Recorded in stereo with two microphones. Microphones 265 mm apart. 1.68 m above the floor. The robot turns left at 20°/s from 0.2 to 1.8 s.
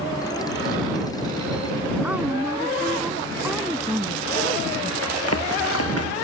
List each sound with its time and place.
2.0 s a woman speaking: 5° right (ahead or behind)
5.0 s running footsteps: 65° left (ahead or behind)